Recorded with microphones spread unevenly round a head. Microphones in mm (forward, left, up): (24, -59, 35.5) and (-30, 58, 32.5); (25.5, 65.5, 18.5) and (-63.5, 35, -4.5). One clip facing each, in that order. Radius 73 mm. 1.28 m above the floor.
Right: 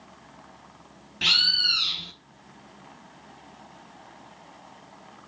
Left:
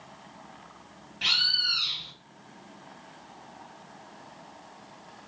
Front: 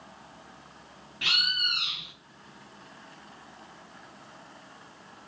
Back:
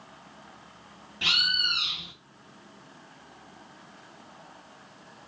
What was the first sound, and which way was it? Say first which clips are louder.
A bird: right 3 dB, back 2 dB; 85° right.